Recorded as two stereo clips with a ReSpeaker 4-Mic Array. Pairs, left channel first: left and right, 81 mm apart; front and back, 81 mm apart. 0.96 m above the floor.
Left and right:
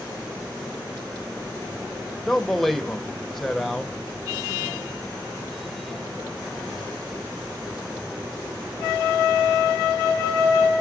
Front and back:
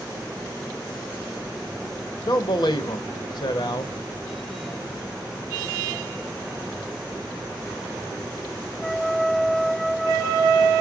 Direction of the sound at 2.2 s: Straight ahead.